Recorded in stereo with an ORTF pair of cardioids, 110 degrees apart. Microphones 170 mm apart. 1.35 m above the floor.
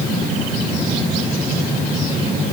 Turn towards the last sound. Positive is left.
No sound to turn to.